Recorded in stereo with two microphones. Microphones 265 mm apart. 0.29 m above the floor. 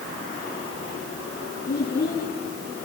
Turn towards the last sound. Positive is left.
turn(degrees=40)  # may be behind; listen again after turning